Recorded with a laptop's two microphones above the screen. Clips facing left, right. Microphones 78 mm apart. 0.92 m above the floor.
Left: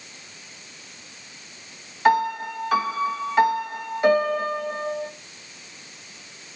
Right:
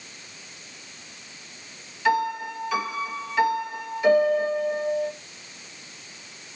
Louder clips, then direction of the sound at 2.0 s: Left 4 dB; 45° left (ahead or behind).